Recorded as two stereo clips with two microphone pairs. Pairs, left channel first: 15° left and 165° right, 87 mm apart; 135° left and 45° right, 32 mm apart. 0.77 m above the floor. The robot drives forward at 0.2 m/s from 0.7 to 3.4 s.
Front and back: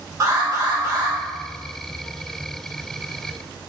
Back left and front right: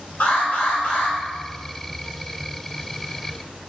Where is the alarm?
150° left, 3 m.